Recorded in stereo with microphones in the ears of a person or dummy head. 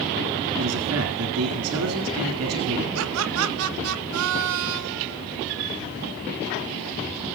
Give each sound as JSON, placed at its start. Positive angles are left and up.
{"t": 0.6, "sound": "a man speaking", "side_deg": -75, "distance_m": 3.0}
{"t": 3.0, "sound": "laughter", "side_deg": -75, "distance_m": 1.4}